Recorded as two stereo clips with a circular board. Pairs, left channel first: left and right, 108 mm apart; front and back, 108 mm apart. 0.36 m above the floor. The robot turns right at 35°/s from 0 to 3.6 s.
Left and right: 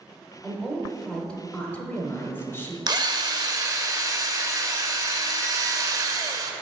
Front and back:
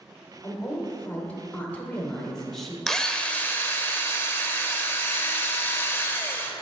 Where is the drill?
85° right, 0.6 m; by 6.5 s 60° right, 0.6 m.